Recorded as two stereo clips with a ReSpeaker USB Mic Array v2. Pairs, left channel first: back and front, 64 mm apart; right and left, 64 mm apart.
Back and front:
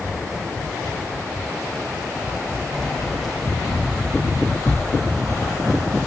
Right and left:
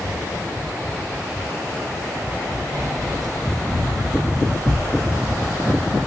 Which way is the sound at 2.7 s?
95° left.